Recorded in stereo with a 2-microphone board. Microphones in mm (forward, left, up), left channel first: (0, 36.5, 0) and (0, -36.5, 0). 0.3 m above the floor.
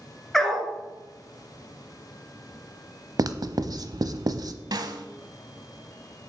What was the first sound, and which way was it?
A dog barking, 5° left (ahead or behind).